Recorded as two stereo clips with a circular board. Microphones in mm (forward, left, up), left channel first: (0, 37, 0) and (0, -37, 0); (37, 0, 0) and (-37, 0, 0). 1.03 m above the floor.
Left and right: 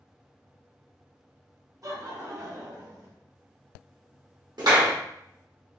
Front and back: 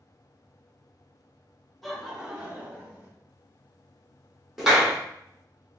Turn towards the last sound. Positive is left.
turn(degrees=-95)